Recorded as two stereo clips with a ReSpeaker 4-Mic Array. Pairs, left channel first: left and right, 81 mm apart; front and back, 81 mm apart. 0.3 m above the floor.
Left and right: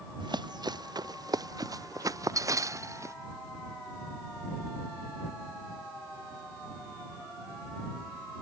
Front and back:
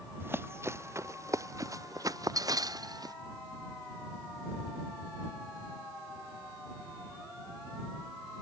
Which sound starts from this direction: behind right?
Running footsteps, at 0.2 s.